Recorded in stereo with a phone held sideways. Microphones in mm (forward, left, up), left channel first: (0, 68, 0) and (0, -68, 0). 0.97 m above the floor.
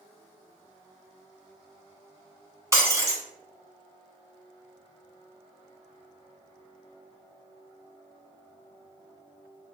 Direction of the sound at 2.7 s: 25° right (ahead or behind).